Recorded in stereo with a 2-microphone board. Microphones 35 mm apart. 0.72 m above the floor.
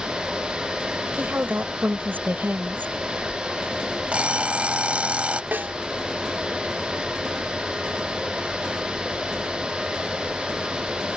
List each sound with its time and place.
1.2 s a woman speaking: 65° right (ahead or behind)
4.1 s an alarm clock: 35° right (ahead or behind)
5.5 s a snare drum: 65° right (ahead or behind)